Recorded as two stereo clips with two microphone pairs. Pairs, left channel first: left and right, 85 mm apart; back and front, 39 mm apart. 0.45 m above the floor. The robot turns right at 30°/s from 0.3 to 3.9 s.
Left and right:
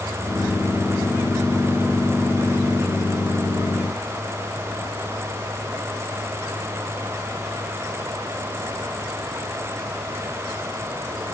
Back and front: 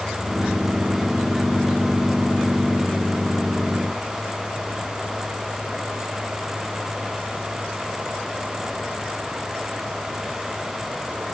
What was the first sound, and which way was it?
Only background noise.